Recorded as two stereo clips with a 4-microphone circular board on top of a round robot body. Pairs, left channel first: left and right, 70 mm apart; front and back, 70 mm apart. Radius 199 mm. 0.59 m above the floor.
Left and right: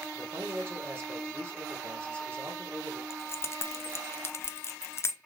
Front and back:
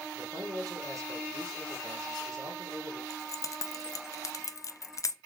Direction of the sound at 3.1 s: 40° left.